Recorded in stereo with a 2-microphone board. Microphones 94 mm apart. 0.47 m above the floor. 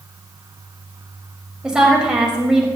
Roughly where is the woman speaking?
Centre.